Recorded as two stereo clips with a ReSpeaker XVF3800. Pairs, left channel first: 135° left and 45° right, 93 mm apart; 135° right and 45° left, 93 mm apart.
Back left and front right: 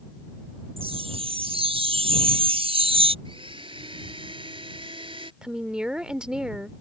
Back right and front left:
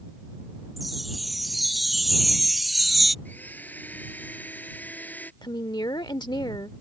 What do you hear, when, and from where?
0.8 s a chime: 45° right
3.2 s a blender: 65° right
5.4 s a woman speaking: 125° right